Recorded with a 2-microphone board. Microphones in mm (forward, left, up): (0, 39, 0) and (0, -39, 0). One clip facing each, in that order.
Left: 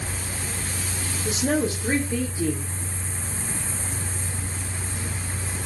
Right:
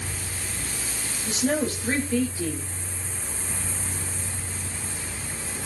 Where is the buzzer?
No buzzer in this recording.